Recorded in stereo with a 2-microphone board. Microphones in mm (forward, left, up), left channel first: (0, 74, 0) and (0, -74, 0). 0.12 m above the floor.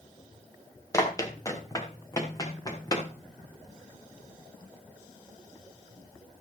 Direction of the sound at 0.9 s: 20° left (ahead or behind).